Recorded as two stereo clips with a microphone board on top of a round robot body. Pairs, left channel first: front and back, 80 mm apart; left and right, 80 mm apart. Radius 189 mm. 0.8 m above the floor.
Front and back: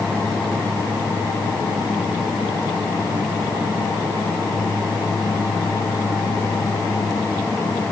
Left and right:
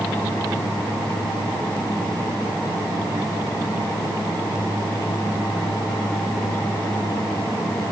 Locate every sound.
Only background noise.